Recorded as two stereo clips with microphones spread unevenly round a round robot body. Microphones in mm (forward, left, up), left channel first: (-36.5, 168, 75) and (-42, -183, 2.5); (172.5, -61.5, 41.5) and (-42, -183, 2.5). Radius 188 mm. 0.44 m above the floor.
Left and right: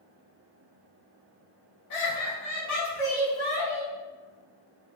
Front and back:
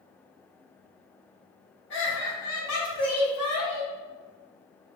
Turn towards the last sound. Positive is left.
turn(degrees=5)